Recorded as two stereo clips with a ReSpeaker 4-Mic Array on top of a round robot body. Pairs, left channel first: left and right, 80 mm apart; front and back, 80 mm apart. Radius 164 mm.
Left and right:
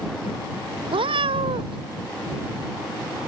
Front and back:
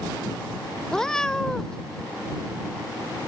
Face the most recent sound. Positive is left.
turn(degrees=-80)